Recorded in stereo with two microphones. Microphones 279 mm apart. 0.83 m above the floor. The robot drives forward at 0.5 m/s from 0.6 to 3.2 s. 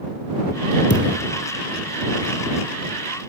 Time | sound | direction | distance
0.9 | a thud | 40° left (ahead or behind) | 4.5 m